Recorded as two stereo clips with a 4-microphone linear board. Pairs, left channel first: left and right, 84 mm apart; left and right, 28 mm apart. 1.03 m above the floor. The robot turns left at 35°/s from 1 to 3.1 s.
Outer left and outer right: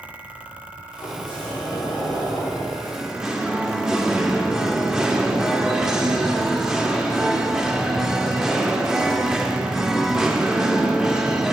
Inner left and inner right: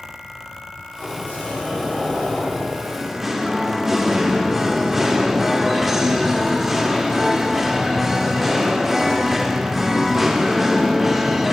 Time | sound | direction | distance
1.0 | a sliding door | 105° left | 1.8 m
2.8 | singing | 15° right (ahead or behind) | 0.7 m